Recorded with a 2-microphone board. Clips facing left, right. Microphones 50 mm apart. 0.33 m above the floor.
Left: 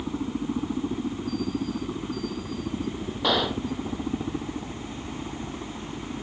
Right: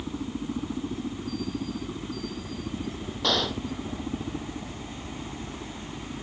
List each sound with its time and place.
0.0 s a helicopter: 15° left (ahead or behind)
3.2 s a gunshot: 15° left (ahead or behind)